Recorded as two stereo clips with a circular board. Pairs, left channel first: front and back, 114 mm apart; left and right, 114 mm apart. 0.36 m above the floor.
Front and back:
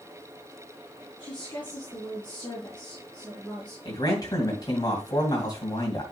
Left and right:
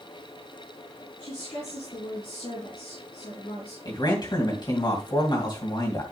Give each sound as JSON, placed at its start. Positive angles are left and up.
{"t": 1.2, "sound": "a woman speaking", "azimuth_deg": 75, "distance_m": 4.5}
{"t": 3.9, "sound": "a man speaking", "azimuth_deg": 50, "distance_m": 2.5}